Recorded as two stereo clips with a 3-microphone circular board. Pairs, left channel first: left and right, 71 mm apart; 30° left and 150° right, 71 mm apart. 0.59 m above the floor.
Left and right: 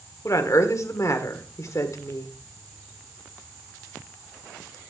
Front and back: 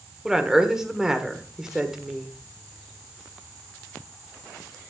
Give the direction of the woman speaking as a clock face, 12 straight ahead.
8 o'clock.